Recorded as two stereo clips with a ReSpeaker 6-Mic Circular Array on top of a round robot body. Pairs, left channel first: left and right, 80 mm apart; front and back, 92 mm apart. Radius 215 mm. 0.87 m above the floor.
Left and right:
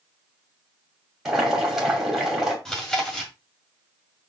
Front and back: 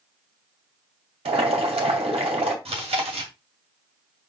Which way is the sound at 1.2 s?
175° right.